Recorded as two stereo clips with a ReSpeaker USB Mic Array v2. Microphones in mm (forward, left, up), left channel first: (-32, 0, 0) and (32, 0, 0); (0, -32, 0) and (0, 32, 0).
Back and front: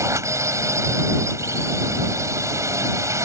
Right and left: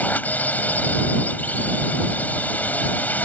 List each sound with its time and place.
0.0 s a drone: 30° right